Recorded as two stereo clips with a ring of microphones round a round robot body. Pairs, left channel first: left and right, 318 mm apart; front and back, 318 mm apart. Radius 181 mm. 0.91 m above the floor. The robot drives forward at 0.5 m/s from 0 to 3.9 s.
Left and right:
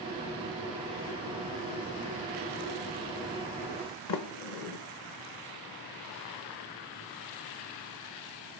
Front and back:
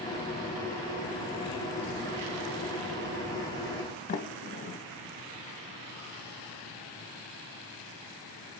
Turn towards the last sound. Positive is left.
turn(degrees=65)